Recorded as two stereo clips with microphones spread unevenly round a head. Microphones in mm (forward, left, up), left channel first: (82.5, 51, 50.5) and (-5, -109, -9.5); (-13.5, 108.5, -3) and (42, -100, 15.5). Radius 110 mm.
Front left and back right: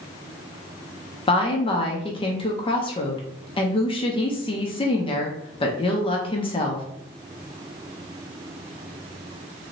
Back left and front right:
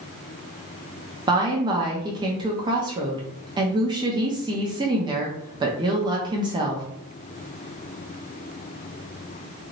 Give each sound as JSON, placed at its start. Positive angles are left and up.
{"t": 1.3, "sound": "a woman speaking", "azimuth_deg": -5, "distance_m": 0.6}